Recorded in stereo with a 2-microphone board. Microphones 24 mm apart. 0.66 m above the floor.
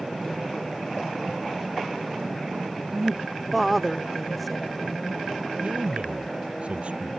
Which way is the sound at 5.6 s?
60° right (ahead or behind).